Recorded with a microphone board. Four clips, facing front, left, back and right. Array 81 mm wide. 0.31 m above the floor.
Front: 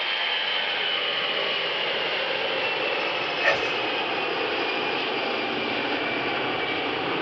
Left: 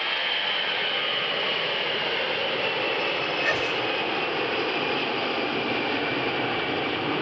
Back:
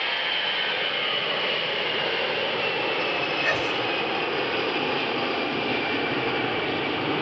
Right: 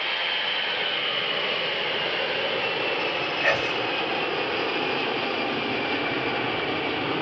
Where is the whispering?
45° right, 1.9 m.